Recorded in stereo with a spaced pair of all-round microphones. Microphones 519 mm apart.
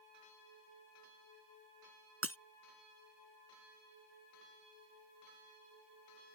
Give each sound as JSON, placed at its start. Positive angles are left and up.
{"t": 2.2, "sound": "breaking glass", "side_deg": -25}